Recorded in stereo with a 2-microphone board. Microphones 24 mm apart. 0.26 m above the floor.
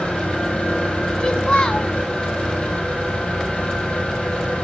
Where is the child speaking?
50° left (ahead or behind), 1.7 m.